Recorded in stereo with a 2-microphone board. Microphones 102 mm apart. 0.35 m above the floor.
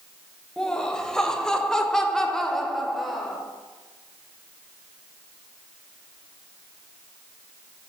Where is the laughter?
10° left (ahead or behind), 1.6 m; by 3.4 s centre (ahead or behind), 1.1 m.